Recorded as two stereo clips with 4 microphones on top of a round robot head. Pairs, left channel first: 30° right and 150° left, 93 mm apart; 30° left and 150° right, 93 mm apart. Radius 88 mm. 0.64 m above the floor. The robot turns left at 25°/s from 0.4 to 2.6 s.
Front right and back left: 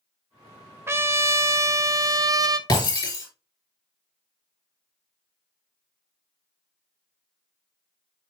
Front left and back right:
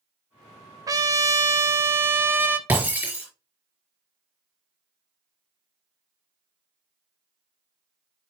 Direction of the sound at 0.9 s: 165° right.